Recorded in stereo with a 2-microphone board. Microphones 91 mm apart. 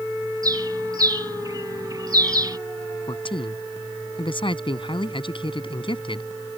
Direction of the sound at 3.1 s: 70° left (ahead or behind).